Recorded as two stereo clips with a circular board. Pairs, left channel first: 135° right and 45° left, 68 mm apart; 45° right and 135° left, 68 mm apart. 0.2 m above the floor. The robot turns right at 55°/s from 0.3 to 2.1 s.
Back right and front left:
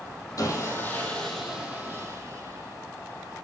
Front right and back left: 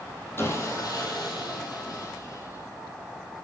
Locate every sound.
0.4 s sawing: 100° right, 2.5 m; by 3.5 s 5° right, 2.5 m